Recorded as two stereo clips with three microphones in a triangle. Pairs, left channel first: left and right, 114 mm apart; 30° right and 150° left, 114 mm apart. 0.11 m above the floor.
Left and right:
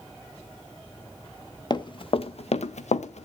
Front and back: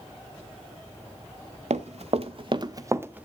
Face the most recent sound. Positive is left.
turn(degrees=70)